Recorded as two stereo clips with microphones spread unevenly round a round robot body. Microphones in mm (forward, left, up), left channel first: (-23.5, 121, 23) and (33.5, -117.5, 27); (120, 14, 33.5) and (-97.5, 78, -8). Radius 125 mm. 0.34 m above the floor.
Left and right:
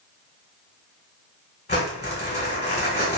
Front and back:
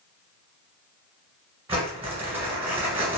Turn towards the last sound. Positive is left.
turn(degrees=120)